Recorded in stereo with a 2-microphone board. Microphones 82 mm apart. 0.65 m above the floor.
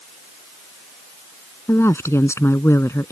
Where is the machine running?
I don't hear a machine running.